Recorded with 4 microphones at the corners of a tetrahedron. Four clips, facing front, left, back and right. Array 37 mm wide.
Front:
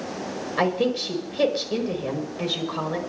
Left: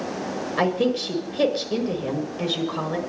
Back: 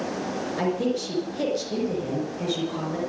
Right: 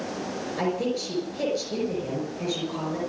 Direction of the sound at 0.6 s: 65° left.